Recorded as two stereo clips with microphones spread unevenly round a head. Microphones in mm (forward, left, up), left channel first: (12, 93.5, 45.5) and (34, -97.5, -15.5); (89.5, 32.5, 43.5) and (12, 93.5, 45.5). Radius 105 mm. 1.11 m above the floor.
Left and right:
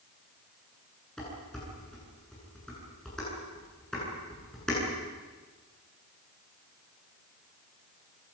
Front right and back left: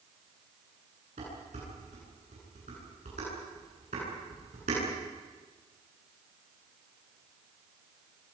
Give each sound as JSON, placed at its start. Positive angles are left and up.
{"t": 1.2, "sound": "dishes clattering", "azimuth_deg": -175, "distance_m": 10.0}